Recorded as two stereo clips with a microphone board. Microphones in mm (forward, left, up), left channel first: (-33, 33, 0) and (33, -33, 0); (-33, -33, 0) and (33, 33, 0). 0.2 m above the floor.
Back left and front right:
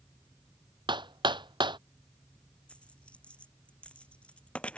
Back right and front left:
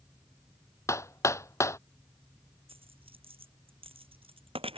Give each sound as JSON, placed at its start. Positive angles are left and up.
{"t": 0.9, "sound": "hammering", "azimuth_deg": -75}
{"t": 2.7, "sound": "a dropped coin", "azimuth_deg": 55}